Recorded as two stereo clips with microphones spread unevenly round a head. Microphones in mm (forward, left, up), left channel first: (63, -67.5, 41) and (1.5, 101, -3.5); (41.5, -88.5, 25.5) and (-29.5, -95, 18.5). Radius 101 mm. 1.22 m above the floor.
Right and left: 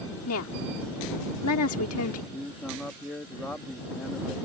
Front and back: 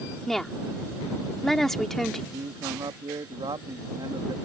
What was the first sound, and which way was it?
A woman speaking, 80° right.